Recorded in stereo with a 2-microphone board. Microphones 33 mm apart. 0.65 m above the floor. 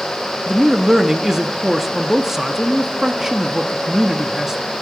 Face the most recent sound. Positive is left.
turn(degrees=-10)  # may be behind; listen again after turning